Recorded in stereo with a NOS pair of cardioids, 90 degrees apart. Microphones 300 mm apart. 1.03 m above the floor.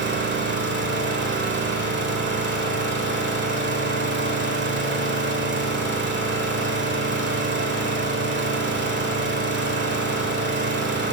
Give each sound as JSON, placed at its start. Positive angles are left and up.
{"t": 0.0, "sound": "an engine running", "azimuth_deg": -40, "distance_m": 1.6}